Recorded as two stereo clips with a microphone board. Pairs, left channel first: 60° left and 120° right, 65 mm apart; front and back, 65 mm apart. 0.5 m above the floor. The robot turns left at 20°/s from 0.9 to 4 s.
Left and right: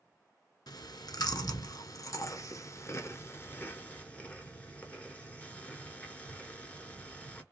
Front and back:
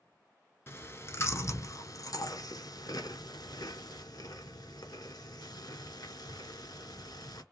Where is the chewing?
50° left, 1.1 m; by 7.4 s 10° right, 1.1 m.